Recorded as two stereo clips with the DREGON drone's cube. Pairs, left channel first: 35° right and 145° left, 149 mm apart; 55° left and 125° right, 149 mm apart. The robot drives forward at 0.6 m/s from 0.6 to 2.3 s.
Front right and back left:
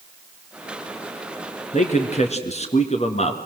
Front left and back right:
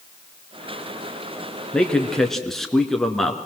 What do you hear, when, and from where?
1.7 s a man speaking: 25° right, 2 m; by 3.4 s 30° right, 1.9 m